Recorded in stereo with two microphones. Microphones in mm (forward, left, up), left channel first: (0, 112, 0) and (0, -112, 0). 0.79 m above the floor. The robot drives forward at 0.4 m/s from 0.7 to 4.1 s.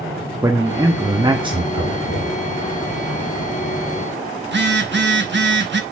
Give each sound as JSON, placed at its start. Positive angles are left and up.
{"t": 0.4, "sound": "a man speaking", "side_deg": -15, "distance_m": 0.8}
{"t": 1.7, "sound": "knocking", "side_deg": 80, "distance_m": 4.5}
{"t": 4.4, "sound": "a phone buzzing", "side_deg": -55, "distance_m": 1.0}